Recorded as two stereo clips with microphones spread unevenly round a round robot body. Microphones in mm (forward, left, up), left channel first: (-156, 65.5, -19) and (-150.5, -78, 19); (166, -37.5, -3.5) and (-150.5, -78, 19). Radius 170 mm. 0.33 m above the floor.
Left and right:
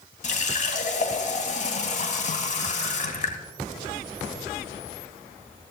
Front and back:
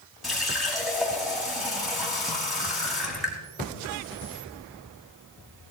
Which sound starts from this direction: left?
A running tap, at 0.2 s.